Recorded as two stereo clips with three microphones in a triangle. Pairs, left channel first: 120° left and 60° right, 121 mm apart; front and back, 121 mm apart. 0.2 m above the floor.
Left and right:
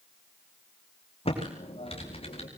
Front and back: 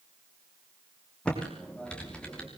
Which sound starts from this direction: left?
Typing on a keyboard, at 1.2 s.